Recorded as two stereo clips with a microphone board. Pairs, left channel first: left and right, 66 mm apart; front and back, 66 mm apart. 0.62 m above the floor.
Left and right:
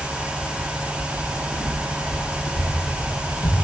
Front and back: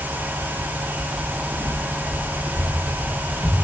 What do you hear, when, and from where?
1.1 s footsteps: 105° left, 3.5 m; by 3.5 s 90° left, 4 m